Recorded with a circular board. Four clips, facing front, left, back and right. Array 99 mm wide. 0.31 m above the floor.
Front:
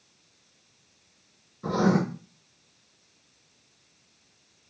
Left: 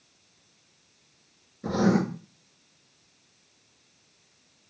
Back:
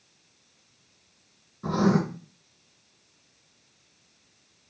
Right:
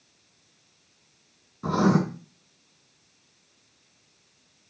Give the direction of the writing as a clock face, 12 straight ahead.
3 o'clock.